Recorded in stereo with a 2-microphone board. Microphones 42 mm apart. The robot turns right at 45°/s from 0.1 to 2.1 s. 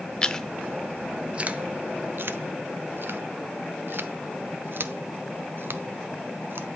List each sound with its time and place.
0.2 s chewing: 20° left (ahead or behind), 0.7 m; by 6.7 s 65° right (ahead or behind), 0.7 m